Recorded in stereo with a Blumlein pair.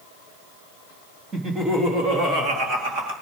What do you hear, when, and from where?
1.3 s laughter: 20° right, 3 m; by 3.1 s 45° right, 3.5 m